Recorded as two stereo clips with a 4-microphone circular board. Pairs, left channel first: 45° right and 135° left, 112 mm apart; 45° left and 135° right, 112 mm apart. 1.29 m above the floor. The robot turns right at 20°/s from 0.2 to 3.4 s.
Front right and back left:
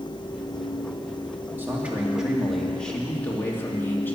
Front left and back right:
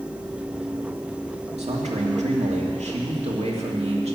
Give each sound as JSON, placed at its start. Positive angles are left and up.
{"t": 1.6, "sound": "a man speaking", "azimuth_deg": -155, "distance_m": 2.5}